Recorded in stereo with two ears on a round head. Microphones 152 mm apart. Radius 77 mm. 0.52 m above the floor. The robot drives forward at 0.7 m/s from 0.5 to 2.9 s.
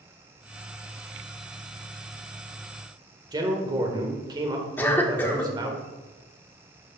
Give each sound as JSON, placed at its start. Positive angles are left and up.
{"t": 3.3, "sound": "a man speaking", "side_deg": -25, "distance_m": 1.6}
{"t": 4.8, "sound": "a cough", "side_deg": 10, "distance_m": 1.3}